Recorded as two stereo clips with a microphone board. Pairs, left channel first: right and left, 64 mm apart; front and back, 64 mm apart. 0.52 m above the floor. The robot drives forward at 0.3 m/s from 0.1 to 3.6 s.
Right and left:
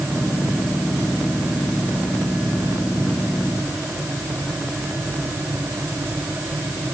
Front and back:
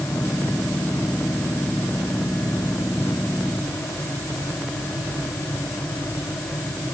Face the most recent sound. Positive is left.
No sound to turn to.